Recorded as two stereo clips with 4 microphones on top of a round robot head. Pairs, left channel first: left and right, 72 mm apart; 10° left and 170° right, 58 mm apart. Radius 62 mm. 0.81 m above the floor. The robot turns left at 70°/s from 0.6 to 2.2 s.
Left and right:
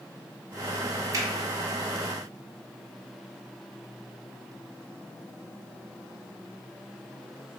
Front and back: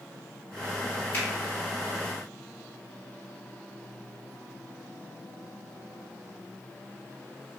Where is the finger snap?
50° right, 1.1 m; by 1.2 s 55° right, 1.1 m.